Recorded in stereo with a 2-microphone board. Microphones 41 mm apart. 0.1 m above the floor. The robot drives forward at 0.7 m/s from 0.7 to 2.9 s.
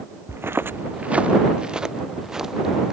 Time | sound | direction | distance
0.3 | footsteps | 75° right (ahead or behind) | ?